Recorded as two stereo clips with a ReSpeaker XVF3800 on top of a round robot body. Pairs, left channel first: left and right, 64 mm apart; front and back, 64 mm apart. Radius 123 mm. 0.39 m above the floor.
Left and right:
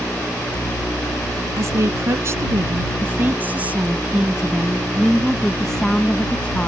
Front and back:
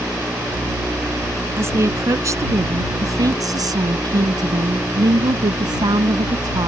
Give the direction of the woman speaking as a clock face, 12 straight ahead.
4 o'clock.